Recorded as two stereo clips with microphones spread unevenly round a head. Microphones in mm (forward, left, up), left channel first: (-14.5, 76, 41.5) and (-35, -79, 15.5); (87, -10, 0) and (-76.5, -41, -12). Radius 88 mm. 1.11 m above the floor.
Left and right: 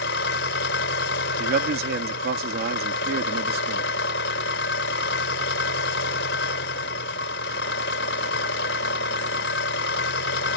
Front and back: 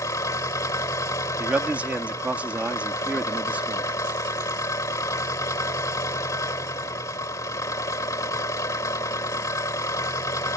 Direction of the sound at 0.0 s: 85° left.